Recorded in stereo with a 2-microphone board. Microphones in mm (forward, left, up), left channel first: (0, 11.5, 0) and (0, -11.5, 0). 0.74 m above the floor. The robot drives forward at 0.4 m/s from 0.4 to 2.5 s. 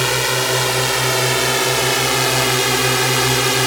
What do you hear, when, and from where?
0.0 s a drone: centre (ahead or behind)